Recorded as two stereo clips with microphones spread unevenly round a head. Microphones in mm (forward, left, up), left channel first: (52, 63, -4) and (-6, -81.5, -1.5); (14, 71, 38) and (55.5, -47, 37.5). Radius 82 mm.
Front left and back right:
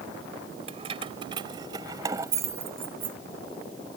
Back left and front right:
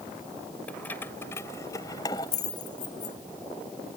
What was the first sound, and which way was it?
Keys jangling, 170° right.